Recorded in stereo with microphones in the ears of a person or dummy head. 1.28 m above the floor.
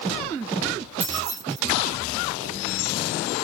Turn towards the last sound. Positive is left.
turn(degrees=-40)  # may be behind; listen again after turning